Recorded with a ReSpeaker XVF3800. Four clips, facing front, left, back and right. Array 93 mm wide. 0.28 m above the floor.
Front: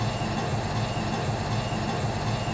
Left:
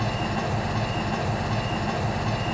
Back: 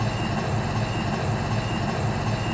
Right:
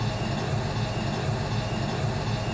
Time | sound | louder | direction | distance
0.0 | an engine running | left 3 dB, back 2 dB | 125° left | 1.7 m